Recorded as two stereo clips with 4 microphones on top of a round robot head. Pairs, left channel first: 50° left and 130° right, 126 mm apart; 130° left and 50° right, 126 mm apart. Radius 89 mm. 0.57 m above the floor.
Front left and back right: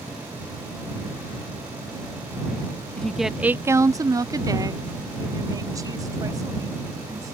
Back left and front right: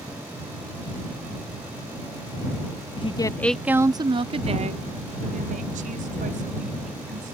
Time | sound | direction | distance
3.0 | a woman speaking | 135° left | ?